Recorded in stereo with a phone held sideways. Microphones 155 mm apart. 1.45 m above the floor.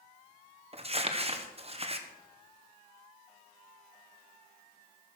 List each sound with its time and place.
0.7 s crumpling: 40° right (ahead or behind), 1.1 m